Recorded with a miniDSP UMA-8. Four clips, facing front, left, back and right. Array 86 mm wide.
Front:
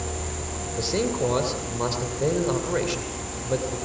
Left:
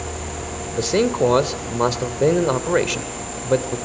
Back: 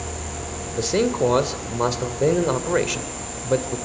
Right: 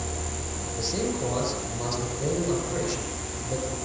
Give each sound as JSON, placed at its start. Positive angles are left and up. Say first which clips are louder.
{"t": 0.7, "sound": "a man speaking", "louder": "left 10 dB, back 5 dB", "azimuth_deg": 115, "distance_m": 2.0}